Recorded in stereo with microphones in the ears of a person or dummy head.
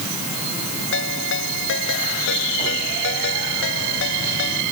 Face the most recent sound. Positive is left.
turn(degrees=65)  # may be behind; listen again after turning